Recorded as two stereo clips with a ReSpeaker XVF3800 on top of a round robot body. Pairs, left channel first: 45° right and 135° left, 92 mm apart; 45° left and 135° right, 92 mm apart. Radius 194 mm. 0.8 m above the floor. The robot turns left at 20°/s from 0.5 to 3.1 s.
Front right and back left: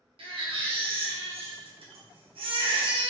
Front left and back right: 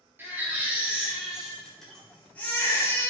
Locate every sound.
0.2 s a baby crying: 155° left, 2 m; by 3.1 s 105° left, 2 m